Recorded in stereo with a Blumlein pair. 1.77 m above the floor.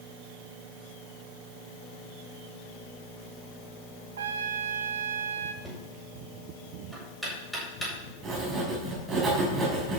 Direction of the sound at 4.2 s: 65° right.